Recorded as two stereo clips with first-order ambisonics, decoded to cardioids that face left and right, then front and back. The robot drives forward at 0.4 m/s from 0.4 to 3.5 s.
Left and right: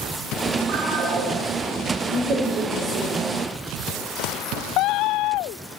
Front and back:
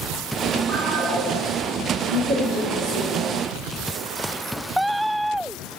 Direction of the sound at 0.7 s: 130° right.